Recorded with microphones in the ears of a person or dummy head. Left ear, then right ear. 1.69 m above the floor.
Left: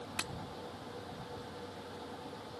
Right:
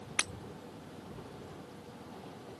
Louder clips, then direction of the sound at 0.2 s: Right 6 dB; 25° right (ahead or behind).